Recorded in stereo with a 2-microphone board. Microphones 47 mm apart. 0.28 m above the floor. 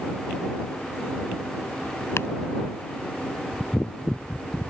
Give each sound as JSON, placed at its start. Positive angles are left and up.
{"t": 2.2, "sound": "chopping", "side_deg": 65}